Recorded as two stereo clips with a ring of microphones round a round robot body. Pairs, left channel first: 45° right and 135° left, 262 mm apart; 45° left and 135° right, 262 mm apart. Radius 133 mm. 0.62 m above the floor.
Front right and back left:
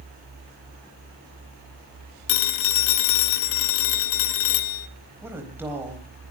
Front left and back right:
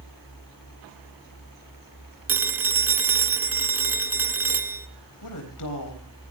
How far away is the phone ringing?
About 1.1 m.